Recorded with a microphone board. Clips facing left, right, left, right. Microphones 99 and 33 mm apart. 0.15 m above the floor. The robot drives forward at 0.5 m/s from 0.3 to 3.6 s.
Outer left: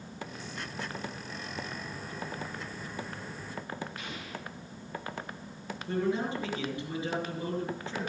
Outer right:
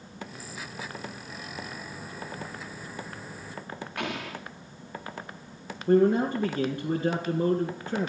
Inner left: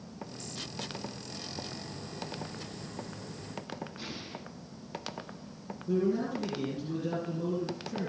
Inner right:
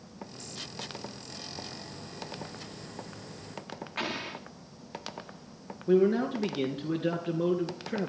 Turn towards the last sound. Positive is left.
turn(degrees=-55)  # may be behind; listen again after turning